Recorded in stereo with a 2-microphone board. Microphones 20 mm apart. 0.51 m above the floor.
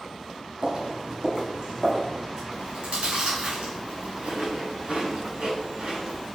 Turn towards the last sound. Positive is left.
turn(degrees=-65)  # may be behind; listen again after turning